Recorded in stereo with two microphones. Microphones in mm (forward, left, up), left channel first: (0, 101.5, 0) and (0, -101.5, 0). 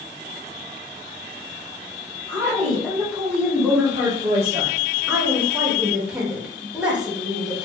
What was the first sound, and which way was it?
A woman speaking, 15° left (ahead or behind).